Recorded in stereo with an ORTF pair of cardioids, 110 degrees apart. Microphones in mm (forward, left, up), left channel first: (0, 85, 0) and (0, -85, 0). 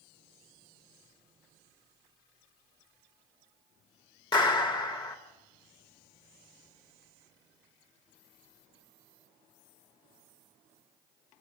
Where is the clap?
25° left, 2.5 m.